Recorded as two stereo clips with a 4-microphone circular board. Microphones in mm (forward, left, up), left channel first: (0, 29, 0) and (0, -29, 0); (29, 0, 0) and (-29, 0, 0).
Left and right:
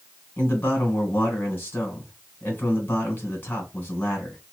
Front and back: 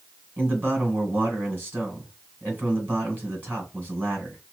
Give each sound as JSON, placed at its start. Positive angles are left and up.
{"t": 0.4, "sound": "a man speaking", "azimuth_deg": 135, "distance_m": 2.0}